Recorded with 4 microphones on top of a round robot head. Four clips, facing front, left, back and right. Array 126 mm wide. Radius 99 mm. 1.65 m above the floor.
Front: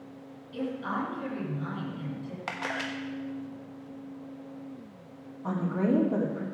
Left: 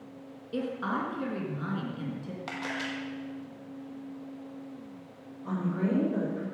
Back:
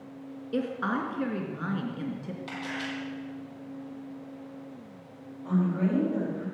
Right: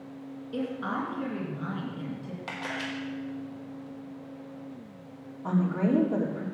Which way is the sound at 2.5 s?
5° left.